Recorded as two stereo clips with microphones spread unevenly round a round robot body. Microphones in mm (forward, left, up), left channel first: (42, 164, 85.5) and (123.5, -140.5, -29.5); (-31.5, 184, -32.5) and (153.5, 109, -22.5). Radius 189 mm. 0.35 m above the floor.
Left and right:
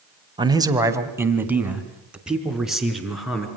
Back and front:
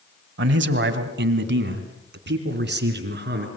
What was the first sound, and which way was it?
A man speaking, 20° right.